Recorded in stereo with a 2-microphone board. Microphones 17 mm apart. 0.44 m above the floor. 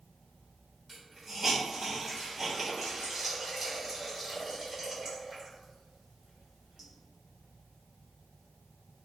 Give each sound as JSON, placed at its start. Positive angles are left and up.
{"t": 0.9, "sound": "a hiss", "side_deg": -20, "distance_m": 1.3}